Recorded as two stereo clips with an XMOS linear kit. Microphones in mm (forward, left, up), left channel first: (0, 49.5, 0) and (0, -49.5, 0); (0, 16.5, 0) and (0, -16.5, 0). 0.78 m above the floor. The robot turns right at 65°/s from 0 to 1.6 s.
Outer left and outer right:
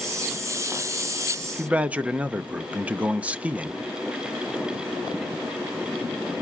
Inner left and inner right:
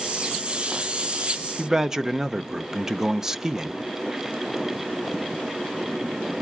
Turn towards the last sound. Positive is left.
turn(degrees=-15)  # may be behind; listen again after turning